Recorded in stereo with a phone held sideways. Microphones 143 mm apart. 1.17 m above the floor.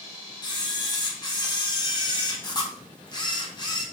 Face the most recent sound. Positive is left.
turn(degrees=30)  # may be behind; listen again after turning